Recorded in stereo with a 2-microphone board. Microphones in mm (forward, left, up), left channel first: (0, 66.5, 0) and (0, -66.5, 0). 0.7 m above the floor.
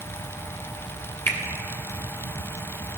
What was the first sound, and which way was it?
A finger snap, 20° left (ahead or behind).